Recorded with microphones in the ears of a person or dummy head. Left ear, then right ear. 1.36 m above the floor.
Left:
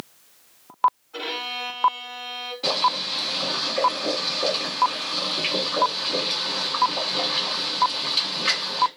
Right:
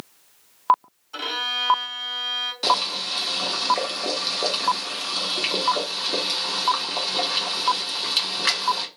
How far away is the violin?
About 1.4 m.